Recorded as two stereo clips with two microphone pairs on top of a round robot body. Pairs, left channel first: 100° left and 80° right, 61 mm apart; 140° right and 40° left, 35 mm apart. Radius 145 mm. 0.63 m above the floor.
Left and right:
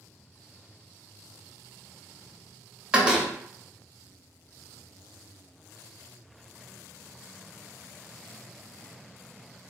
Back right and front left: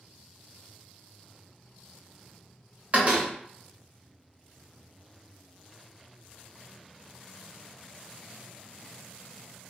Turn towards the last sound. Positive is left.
turn(degrees=-10)